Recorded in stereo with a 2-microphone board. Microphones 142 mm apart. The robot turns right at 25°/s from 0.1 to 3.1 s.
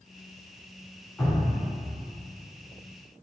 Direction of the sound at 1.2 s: 15° left (ahead or behind).